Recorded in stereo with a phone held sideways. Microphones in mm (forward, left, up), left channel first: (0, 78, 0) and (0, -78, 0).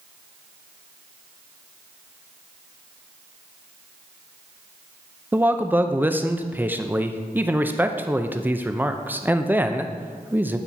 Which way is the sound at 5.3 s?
10° right (ahead or behind).